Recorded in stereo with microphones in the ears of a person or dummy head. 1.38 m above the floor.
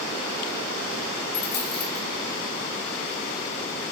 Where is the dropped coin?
50° left (ahead or behind), 4.5 m.